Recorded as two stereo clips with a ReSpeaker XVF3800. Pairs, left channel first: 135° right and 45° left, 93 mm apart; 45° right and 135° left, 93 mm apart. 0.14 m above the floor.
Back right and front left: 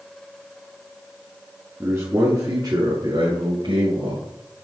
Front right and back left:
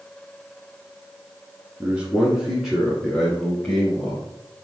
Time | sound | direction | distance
1.8 | a man speaking | 80° left | 1.2 m